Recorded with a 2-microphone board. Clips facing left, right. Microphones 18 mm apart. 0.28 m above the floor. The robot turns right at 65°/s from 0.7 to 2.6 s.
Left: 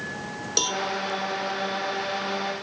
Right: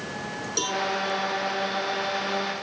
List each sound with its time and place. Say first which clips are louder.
0.6 s a cowbell: left 2 dB; 30° left (ahead or behind), 1.6 m; by 0.8 s 35° left (ahead or behind), 1.6 m